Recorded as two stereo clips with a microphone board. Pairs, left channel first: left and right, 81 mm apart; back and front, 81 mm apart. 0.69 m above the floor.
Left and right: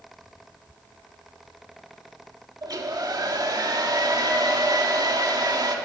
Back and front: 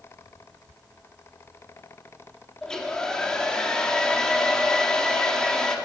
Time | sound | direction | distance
2.6 | a hair dryer | 100° right | 1.4 m